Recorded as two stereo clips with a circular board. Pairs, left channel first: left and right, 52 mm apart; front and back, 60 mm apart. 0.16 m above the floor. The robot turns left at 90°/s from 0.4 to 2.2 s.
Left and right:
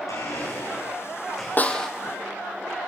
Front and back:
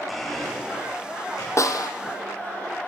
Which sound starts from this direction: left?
A blender, at 0.1 s.